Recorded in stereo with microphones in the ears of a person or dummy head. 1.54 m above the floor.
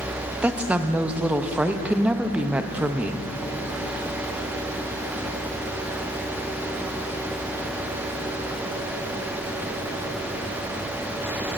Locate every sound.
0.4 s a woman speaking: 10° right (ahead or behind), 0.6 m